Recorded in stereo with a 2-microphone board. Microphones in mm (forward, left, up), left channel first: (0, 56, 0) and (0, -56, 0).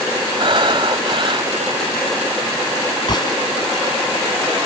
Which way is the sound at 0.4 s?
50° right (ahead or behind).